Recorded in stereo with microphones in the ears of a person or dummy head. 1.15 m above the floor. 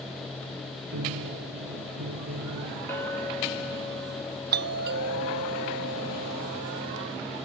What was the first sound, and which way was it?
A piano, 85° right.